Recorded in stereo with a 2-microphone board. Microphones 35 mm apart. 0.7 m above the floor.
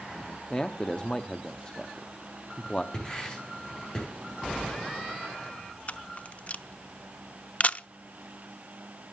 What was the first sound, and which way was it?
A man speaking, 25° left (ahead or behind).